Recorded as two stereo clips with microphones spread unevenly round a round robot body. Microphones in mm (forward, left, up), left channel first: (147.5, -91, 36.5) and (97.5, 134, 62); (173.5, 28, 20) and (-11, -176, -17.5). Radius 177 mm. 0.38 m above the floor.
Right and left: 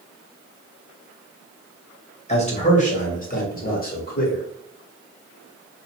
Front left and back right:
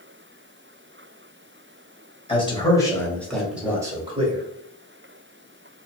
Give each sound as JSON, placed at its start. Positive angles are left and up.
{"t": 2.3, "sound": "a man speaking", "azimuth_deg": -25, "distance_m": 1.8}